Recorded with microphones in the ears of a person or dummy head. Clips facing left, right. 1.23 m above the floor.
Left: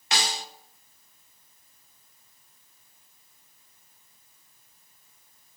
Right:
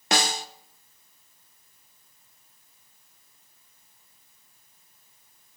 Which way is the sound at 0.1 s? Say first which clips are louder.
Right 5 dB; 45° right (ahead or behind).